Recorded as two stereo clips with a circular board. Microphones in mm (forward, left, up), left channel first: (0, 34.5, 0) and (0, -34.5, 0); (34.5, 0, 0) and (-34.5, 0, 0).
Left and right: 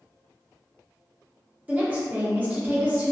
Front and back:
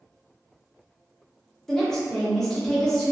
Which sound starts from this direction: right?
A woman speaking, at 1.7 s.